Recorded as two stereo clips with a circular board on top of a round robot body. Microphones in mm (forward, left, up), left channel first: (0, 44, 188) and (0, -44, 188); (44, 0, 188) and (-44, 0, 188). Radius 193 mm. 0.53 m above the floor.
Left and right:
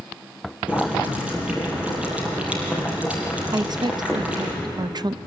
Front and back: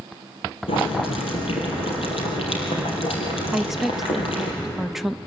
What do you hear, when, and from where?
0.7 s boiling: 10° right, 4.5 m
3.5 s a woman speaking: 95° right, 0.8 m